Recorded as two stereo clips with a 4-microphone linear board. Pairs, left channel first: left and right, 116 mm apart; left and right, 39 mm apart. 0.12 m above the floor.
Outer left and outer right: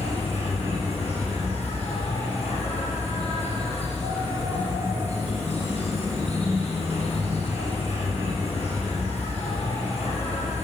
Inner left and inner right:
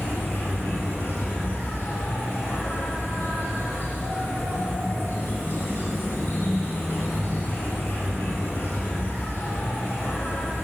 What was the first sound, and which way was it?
An insect, 65° left (ahead or behind).